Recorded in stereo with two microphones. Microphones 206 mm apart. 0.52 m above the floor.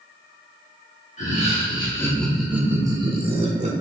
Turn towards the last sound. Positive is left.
turn(degrees=-35)  # may be behind; listen again after turning